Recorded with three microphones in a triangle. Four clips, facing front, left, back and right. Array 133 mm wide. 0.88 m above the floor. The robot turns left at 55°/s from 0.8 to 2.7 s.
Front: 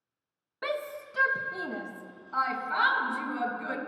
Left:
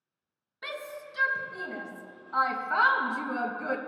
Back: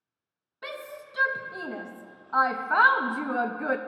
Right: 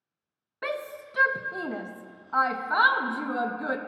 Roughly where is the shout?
Ahead right.